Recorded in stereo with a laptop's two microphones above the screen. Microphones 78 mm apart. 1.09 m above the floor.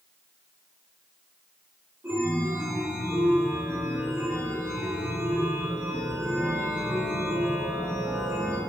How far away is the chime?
About 3 m.